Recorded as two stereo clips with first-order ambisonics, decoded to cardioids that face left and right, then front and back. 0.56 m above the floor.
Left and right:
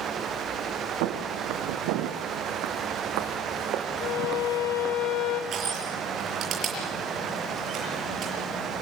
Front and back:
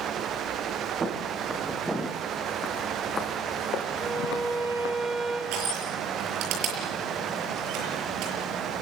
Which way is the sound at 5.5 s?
145° right.